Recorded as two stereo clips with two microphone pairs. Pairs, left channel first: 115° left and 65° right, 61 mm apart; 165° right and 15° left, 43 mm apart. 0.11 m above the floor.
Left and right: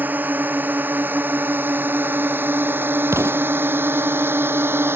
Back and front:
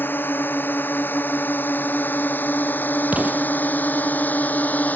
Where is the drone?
125° right; by 5.0 s 115° right.